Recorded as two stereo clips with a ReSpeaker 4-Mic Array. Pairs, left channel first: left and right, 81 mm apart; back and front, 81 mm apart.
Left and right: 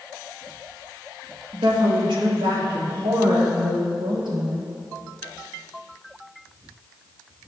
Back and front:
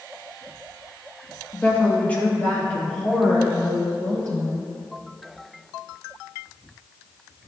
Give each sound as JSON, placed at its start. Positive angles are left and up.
{"t": 1.5, "sound": "a woman speaking", "azimuth_deg": -110, "distance_m": 1.2}